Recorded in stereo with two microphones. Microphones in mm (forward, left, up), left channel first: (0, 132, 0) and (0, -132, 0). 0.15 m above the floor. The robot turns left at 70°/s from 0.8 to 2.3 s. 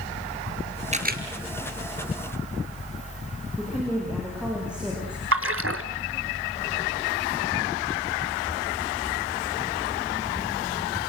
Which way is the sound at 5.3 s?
55° right (ahead or behind).